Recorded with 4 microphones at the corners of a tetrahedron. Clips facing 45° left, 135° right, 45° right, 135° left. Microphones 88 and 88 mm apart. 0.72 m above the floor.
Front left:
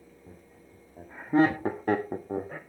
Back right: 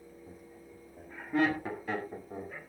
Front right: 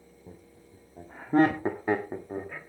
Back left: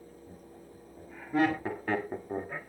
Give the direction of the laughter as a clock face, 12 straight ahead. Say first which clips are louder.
Back right 2 dB, back left 1 dB; 1 o'clock.